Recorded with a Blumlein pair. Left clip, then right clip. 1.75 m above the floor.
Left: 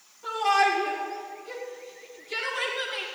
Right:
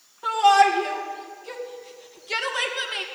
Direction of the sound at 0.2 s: 60° right.